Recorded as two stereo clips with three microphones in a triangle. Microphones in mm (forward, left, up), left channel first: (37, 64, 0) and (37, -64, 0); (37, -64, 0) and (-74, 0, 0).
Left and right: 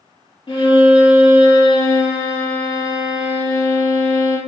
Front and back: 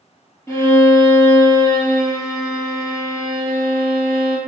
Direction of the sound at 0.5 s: 40° left.